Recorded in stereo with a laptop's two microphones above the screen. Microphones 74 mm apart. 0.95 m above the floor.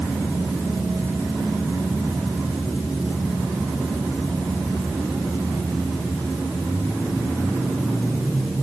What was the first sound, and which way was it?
Only background noise.